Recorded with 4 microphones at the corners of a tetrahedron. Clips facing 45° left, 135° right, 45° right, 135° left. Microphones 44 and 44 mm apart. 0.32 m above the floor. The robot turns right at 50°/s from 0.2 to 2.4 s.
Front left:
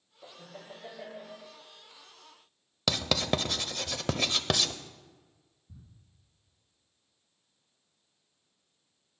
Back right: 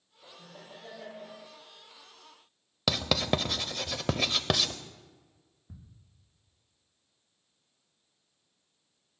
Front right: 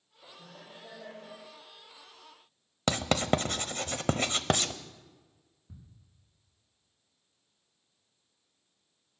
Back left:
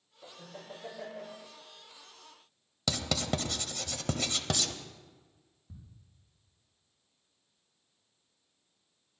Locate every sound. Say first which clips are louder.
0.2 s laughter: front left 3 dB, back left 3 dB; 75° left, 6.5 m; by 1.4 s 135° left, 6.5 m
2.9 s writing: back right 1 dB, front right 5 dB; 55° right, 0.8 m
5.7 s ticking: back right 5 dB, front right 1 dB; 125° right, 6 m